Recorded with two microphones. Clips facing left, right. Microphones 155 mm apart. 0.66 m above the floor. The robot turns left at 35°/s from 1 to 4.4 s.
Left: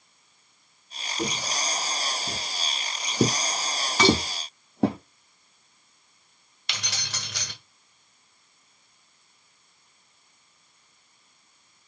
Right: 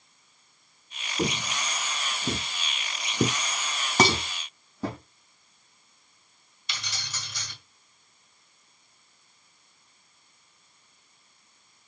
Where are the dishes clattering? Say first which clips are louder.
Left 3 dB; 45° right (ahead or behind), 2.5 m; by 4.2 s 40° right (ahead or behind), 2.5 m.